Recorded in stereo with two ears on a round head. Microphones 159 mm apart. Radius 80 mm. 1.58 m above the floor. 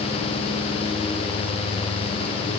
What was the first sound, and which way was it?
Only background noise.